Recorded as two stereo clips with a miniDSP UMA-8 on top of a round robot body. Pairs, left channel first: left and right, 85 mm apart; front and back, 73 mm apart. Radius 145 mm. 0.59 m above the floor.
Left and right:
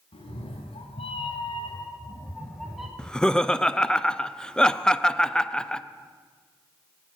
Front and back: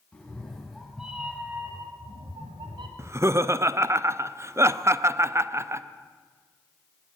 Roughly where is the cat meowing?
Left.